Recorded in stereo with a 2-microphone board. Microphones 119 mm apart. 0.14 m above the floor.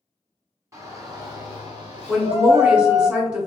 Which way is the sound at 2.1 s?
5° right (ahead or behind).